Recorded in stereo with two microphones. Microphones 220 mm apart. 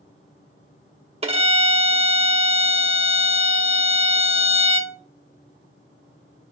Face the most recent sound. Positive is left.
turn(degrees=-25)  # may be behind; listen again after turning